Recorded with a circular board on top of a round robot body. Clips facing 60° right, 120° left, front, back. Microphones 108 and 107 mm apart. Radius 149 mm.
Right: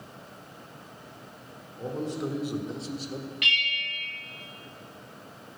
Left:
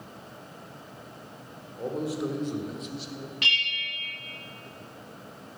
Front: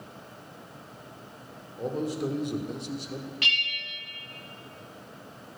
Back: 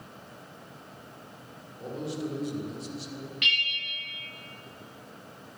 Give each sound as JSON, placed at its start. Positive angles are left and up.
{"t": 1.8, "sound": "a man speaking", "azimuth_deg": 50, "distance_m": 2.0}
{"t": 3.4, "sound": "a bell", "azimuth_deg": 60, "distance_m": 0.6}